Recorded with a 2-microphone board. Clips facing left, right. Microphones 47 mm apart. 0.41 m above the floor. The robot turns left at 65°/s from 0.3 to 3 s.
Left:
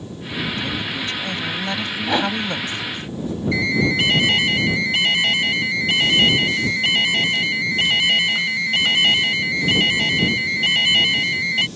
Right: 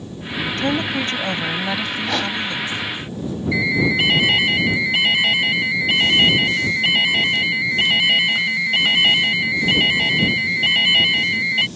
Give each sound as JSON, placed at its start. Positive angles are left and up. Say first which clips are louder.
{"t": 0.6, "sound": "a woman speaking", "louder": "right 5 dB", "azimuth_deg": -95}
{"t": 2.0, "sound": "a whoosh", "louder": "left 4 dB", "side_deg": 10}
{"t": 3.5, "sound": "an alarm", "louder": "right 1 dB", "side_deg": -10}